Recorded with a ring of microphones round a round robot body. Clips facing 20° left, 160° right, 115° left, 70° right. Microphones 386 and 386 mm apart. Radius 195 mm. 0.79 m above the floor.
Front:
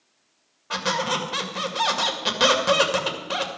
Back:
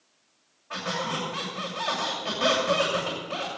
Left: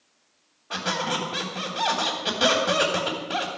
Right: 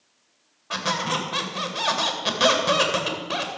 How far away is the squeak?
About 2.5 m.